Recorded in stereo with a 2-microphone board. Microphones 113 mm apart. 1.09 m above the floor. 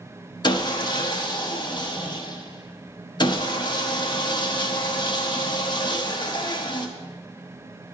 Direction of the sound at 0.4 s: 40° left (ahead or behind).